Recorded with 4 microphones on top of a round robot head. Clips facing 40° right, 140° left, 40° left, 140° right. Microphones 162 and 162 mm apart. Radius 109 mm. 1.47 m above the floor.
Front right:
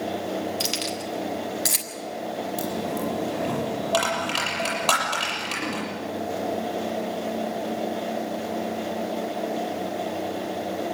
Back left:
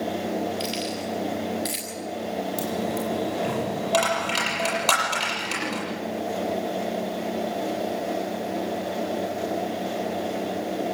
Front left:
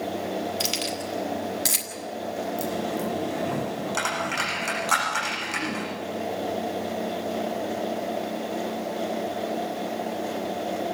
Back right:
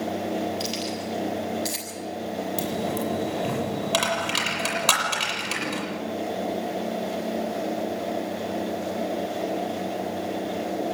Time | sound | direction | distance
0.6 | keys jangling | 5° left | 4.5 m
2.6 | a dropped coin | 135° right | 7 m